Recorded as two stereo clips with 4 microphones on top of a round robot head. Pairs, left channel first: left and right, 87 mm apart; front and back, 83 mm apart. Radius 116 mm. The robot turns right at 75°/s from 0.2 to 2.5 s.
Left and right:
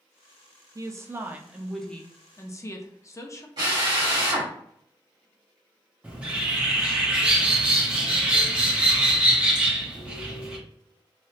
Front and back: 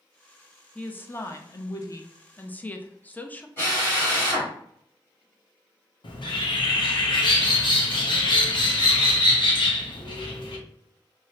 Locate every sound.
0.8 s a woman speaking: 70° right, 0.6 m; by 3.5 s 60° left, 0.6 m
3.6 s a drill: 60° right, 1.9 m
6.0 s a bird: 15° right, 1.0 m